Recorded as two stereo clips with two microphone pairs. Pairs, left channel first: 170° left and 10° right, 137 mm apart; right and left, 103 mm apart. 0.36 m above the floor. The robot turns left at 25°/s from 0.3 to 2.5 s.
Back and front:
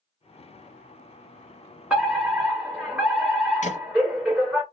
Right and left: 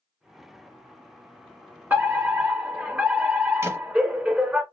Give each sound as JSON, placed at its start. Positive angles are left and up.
{"t": 1.9, "sound": "a fire alarm", "azimuth_deg": 75, "distance_m": 1.8}
{"t": 3.6, "sound": "a thud", "azimuth_deg": 150, "distance_m": 1.4}